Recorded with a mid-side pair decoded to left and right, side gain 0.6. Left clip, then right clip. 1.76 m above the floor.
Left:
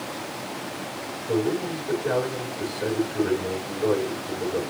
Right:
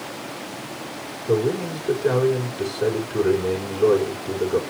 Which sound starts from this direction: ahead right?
A man speaking, at 1.3 s.